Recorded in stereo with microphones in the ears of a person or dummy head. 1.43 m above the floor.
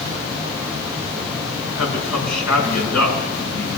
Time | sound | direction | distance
1.8 | a man speaking | 85° left | 6.5 m